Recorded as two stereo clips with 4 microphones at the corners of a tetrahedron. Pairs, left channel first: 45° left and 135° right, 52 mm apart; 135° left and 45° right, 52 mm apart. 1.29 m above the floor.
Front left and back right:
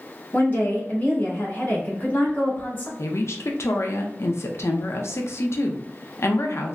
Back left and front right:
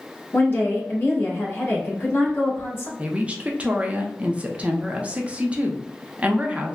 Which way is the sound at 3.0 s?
20° left.